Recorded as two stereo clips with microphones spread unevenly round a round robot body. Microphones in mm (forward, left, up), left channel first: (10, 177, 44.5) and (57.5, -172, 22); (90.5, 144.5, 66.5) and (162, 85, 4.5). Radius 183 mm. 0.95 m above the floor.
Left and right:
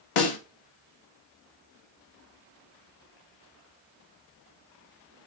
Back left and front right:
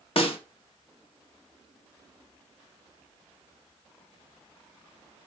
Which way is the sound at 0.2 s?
100° left.